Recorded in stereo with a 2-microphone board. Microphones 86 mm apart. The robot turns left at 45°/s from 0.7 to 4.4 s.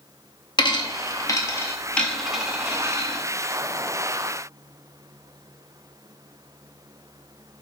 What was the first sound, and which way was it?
A dropped coin, 60° left (ahead or behind).